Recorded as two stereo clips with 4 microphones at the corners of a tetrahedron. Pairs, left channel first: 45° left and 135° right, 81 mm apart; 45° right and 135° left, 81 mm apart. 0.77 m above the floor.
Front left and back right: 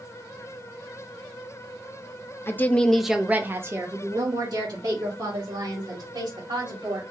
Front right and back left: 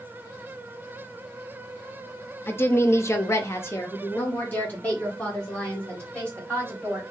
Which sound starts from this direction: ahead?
A woman speaking, at 2.5 s.